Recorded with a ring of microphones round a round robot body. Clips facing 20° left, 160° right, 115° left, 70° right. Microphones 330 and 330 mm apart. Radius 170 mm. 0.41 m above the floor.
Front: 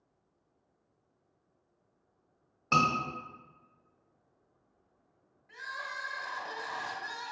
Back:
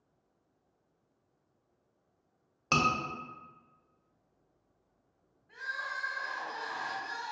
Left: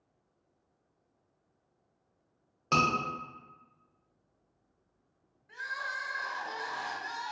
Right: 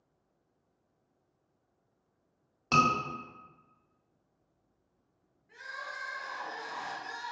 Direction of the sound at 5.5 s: 55° left.